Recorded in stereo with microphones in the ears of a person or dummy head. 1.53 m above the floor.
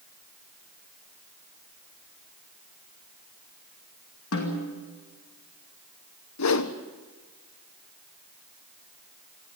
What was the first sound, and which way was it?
A snare drum, 70° left (ahead or behind).